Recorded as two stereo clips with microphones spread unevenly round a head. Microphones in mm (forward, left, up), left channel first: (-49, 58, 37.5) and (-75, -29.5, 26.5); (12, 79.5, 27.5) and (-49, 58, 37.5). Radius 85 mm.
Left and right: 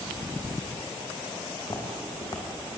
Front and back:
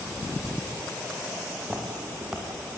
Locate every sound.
1.6 s footsteps: 120° left, 4.5 m